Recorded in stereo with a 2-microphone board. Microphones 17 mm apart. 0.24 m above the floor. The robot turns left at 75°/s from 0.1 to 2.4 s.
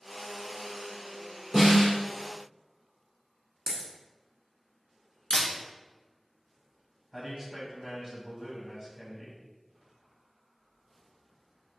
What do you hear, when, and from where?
1.5 s a snare drum: 175° right, 1.9 m; by 1.9 s 155° left, 1.9 m
3.7 s a dropped coin: 40° right (ahead or behind), 1.0 m
5.3 s a camera shutter: 70° left (ahead or behind), 1.3 m
7.1 s a man speaking: 20° right (ahead or behind), 1.5 m